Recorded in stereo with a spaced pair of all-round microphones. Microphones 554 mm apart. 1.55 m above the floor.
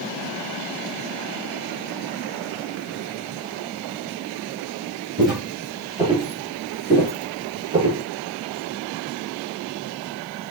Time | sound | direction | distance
5.2 | footsteps | centre (ahead or behind) | 1.8 m